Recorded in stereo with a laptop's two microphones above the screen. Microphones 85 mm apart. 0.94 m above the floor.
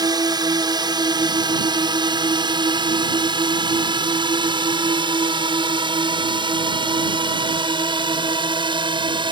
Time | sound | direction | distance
0.0 | a drone | 55° right (ahead or behind) | ?